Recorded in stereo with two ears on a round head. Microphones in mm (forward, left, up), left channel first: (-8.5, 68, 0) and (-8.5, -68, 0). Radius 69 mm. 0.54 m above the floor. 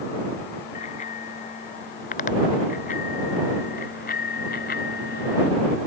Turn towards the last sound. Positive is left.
turn(degrees=60)  # may be behind; listen again after turning